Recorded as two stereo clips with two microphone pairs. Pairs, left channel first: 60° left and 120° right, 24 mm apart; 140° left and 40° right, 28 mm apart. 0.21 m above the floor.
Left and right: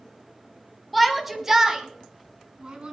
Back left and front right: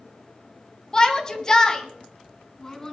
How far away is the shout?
About 1.3 m.